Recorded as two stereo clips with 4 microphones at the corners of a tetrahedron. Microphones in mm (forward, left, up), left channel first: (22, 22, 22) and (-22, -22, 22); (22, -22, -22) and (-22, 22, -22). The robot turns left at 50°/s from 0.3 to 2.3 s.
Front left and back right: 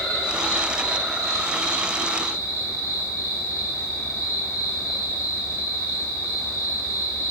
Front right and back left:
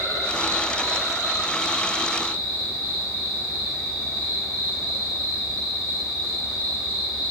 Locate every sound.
0.0 s an insect: 35° right, 3.5 m; by 7.3 s 135° right, 3.5 m